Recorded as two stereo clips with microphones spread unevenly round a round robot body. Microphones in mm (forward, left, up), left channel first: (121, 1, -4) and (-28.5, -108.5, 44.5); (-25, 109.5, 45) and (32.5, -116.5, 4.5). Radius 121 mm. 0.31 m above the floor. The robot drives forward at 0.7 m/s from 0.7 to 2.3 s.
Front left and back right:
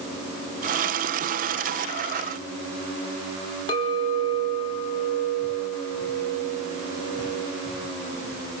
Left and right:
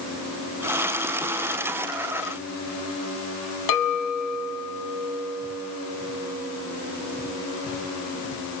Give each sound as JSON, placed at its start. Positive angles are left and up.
{"t": 3.7, "sound": "a clink", "azimuth_deg": 105, "distance_m": 1.5}